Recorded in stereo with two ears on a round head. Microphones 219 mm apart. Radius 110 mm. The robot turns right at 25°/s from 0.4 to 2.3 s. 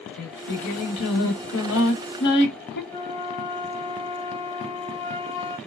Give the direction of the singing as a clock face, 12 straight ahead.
9 o'clock.